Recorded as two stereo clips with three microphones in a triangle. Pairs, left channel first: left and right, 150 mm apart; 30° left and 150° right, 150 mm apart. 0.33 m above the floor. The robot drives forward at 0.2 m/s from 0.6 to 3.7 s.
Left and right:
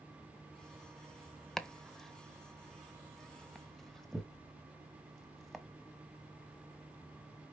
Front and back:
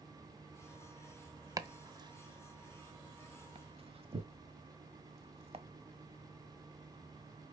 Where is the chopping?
175° left, 0.7 m.